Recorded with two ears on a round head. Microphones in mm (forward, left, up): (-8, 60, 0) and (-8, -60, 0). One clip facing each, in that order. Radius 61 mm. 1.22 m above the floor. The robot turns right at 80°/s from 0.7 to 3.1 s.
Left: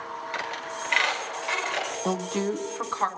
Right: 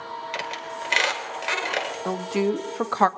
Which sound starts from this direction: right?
A squeak, at 0.3 s.